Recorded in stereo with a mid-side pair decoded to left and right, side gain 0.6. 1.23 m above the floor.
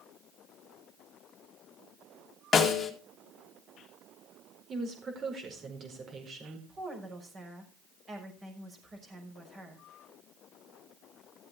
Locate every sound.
2.5 s a snare drum: 30° left, 2 m
4.7 s a woman speaking: 40° right, 4.5 m
6.7 s a woman speaking: 30° right, 5.5 m